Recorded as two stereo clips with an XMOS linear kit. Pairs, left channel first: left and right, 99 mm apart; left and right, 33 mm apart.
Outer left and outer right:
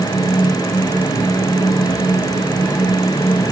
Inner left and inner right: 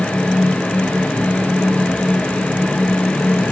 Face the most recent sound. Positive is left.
No sound to turn to.